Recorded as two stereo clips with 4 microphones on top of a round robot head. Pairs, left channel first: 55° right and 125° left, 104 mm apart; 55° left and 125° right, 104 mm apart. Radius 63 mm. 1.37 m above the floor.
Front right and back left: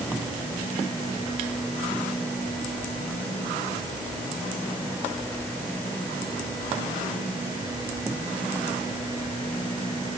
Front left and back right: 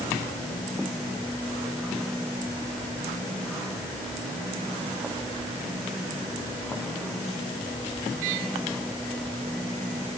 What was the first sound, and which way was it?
Only background noise.